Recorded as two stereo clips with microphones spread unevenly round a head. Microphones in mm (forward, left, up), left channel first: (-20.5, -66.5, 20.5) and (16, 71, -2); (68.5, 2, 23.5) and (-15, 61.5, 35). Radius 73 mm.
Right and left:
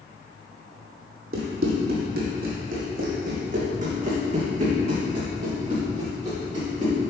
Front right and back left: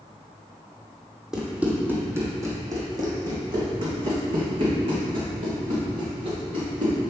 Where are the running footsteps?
65° left, 1.7 m; by 7.0 s 130° left, 4.5 m.